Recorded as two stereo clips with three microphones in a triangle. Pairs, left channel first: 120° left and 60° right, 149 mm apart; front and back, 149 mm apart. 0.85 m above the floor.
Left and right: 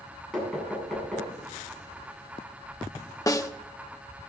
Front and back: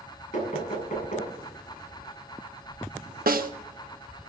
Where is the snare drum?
175° right, 0.9 m.